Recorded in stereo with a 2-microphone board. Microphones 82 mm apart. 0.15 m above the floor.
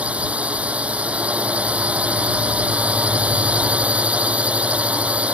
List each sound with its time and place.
0.0 s a drone: 15° right (ahead or behind)